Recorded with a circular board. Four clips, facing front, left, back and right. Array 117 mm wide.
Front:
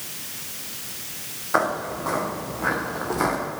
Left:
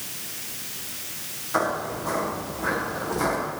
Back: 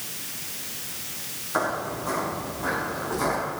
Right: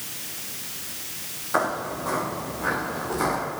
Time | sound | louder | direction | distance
1.5 | footsteps | even, front 4 dB | 15° right | 7.5 m